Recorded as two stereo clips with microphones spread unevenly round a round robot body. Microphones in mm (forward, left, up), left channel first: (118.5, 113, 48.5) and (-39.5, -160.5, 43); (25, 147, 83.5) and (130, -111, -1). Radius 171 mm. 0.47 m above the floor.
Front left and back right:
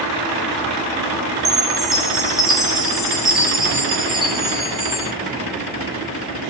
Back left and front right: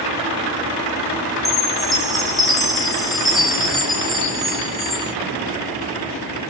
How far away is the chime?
About 0.9 m.